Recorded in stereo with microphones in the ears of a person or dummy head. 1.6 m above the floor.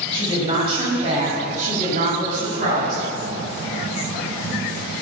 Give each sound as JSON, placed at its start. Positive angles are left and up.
{"t": 0.1, "sound": "a woman speaking", "side_deg": -30, "distance_m": 7.0}